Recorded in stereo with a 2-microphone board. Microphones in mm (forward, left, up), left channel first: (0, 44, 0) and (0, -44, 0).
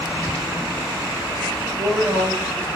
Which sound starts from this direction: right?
A woman speaking, at 1.6 s.